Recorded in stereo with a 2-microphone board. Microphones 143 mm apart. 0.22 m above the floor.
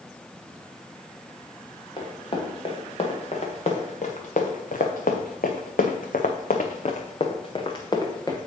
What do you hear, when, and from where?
2.0 s running footsteps: 35° left (ahead or behind), 2.5 m; by 8.4 s 25° left (ahead or behind), 1.7 m